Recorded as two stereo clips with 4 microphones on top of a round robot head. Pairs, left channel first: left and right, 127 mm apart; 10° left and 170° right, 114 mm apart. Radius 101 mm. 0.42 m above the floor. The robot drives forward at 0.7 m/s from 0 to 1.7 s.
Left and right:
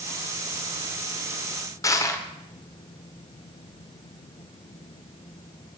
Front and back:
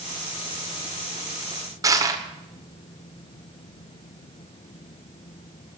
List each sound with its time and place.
1.8 s crushing: 145° left, 1.6 m